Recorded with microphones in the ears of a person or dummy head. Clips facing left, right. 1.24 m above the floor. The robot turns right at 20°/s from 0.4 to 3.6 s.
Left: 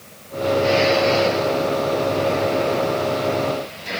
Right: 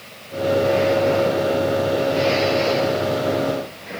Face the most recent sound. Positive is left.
No sound to turn to.